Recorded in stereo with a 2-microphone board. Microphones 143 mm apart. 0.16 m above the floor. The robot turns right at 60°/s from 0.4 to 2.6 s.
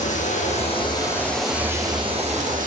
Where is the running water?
120° left, 2 m; by 2.7 s 110° right, 2 m.